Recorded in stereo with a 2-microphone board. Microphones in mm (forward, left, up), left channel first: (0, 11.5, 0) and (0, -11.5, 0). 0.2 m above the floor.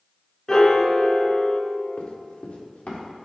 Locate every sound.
0.5 s a piano: 30° left (ahead or behind), 0.7 m
2.0 s running footsteps: 55° left (ahead or behind), 1.5 m; by 3.3 s 85° left, 3 m